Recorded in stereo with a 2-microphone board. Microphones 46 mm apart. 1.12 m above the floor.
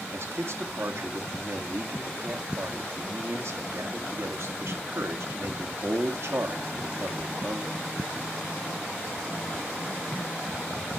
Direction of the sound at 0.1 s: 60° right (ahead or behind).